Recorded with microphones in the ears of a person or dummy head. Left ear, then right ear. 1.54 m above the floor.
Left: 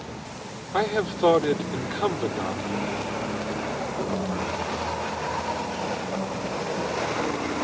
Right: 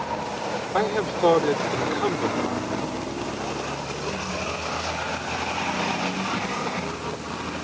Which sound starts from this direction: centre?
A man speaking, at 0.7 s.